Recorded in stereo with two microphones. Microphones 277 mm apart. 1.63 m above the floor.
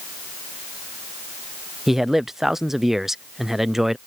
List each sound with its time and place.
1.9 s a man speaking: centre (ahead or behind)